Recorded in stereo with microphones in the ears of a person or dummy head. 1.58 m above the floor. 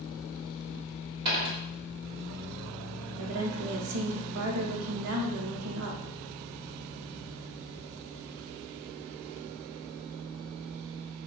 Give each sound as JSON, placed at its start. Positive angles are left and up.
{"t": 1.2, "sound": "a dropped coin", "side_deg": -30, "distance_m": 1.7}
{"t": 3.2, "sound": "a woman speaking", "side_deg": -80, "distance_m": 0.6}